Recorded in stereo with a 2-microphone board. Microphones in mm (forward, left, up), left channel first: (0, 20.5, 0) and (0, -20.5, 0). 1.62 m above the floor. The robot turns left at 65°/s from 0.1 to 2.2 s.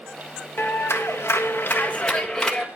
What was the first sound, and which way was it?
A clap, 120° left.